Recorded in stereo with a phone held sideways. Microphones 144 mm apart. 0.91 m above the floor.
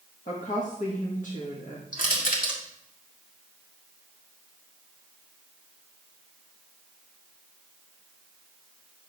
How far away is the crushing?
About 2 m.